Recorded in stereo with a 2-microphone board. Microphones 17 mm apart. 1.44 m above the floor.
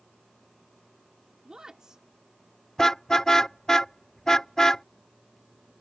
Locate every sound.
1.4 s a woman speaking: 45° right (ahead or behind)
2.8 s a car horn: 30° left (ahead or behind)